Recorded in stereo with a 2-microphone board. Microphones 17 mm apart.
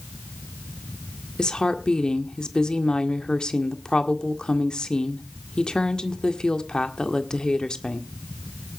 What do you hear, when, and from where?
1.4 s a woman speaking: 50° left (ahead or behind), 1.7 m